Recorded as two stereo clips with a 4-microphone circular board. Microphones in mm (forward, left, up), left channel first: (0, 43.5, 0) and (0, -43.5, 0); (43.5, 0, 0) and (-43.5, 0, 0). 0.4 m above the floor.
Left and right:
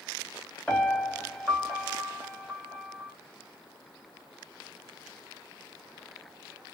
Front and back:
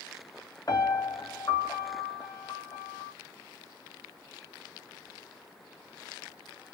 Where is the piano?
10° left, 1.2 m.